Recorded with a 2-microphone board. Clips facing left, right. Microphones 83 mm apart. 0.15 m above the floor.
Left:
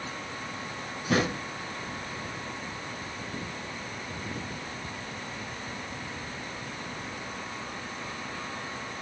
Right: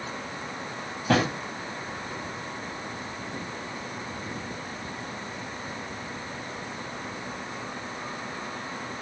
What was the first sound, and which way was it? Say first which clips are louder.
A drawer: right 3 dB; 75° right (ahead or behind).